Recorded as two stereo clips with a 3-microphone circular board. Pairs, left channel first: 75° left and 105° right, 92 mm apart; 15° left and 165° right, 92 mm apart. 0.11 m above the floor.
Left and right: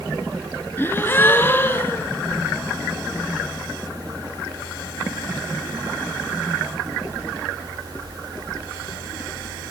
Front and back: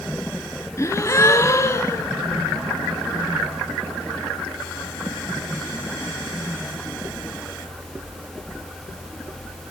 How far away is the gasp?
About 1.7 m.